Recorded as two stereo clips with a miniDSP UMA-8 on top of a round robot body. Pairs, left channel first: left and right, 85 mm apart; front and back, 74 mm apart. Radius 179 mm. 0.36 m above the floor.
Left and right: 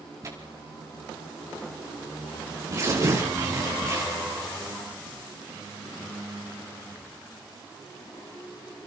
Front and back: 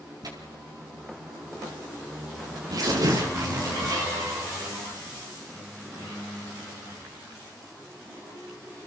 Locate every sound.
0.2 s tearing paper: 145° right, 5 m